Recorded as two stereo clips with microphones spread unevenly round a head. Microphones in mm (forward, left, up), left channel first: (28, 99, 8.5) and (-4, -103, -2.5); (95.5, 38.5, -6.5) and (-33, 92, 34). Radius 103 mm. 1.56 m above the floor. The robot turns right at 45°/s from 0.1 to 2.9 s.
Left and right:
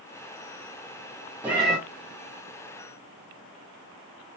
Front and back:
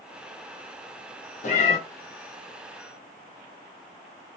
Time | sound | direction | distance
1.4 | a cat meowing | 20° right | 0.8 m